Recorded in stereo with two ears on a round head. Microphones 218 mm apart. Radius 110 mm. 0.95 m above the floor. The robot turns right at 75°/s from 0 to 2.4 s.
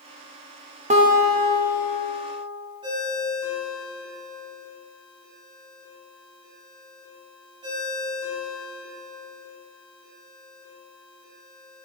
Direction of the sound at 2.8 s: 20° right (ahead or behind).